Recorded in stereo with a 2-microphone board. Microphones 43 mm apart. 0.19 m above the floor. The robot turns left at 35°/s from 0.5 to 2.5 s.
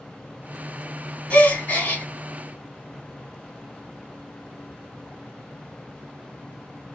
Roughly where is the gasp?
Left.